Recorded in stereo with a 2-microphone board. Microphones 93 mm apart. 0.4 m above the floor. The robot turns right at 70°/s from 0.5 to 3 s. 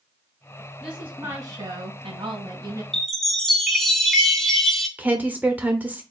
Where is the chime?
5° left (ahead or behind), 0.9 m; by 4.9 s centre (ahead or behind), 0.9 m.